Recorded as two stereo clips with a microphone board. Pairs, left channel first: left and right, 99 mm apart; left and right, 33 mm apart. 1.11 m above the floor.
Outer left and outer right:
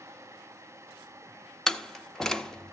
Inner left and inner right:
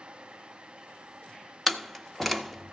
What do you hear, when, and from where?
1.7 s a door slam: 5° left (ahead or behind), 0.7 m